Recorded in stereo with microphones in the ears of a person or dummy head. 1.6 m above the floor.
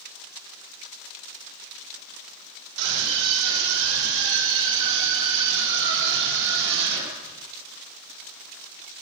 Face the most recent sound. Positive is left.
turn(degrees=-65)  # may be behind; listen again after turning